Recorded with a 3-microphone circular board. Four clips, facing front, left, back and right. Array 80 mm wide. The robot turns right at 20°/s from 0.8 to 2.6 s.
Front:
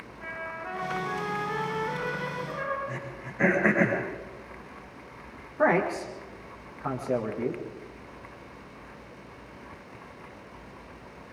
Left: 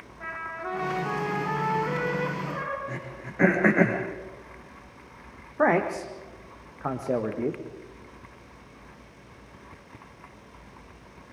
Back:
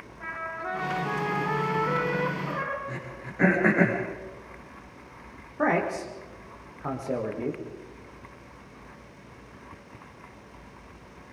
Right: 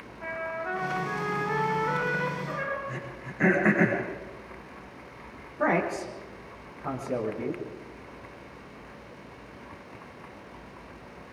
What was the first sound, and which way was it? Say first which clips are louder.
A trumpet: right 2 dB, back 3 dB; 105° left.